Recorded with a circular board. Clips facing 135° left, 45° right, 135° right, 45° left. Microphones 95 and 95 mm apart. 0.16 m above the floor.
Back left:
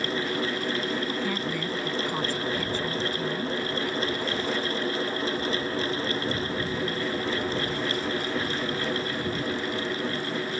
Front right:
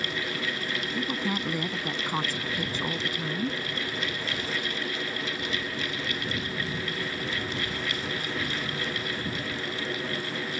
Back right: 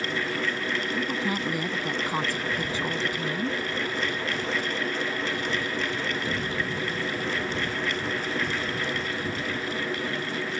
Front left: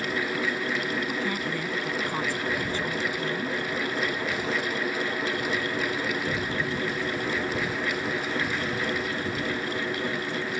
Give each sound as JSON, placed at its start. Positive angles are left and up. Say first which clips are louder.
{"t": 0.9, "sound": "a woman speaking", "louder": "back left 1 dB, back right 1 dB", "azimuth_deg": -90}